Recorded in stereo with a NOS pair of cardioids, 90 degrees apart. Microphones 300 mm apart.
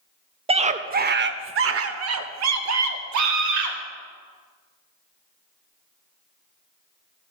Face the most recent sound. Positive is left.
turn(degrees=-75)